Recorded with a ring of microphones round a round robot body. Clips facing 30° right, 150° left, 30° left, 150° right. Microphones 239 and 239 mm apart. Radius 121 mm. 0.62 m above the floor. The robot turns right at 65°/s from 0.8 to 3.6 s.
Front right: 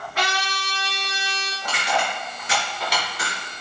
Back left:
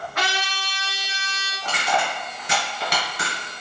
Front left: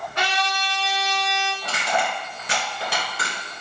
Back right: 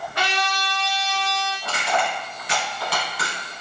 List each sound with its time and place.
0.1 s a trumpet: 90° right, 1.6 m; by 1.5 s 45° right, 1.6 m
1.6 s crushing: 20° left, 1.5 m; by 3.4 s 130° left, 1.5 m